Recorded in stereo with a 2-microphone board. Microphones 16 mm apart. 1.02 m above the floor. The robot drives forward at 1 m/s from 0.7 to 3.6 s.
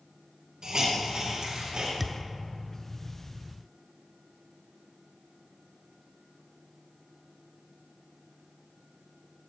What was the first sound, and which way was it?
A hiss, 55° right (ahead or behind).